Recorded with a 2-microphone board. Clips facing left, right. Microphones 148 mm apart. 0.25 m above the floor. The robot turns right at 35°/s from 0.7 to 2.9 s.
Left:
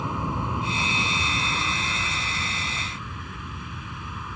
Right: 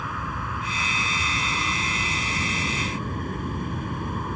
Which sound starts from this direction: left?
An aircraft, at 0.0 s.